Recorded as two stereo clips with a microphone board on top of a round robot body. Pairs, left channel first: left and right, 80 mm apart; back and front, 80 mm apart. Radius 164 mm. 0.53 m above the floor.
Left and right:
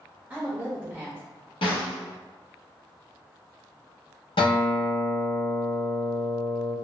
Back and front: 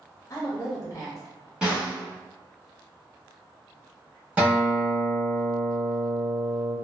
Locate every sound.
0.3 s a woman speaking: 150° right, 1.1 m
1.6 s a snare drum: 80° left, 0.8 m
4.4 s a guitar: 75° left, 0.8 m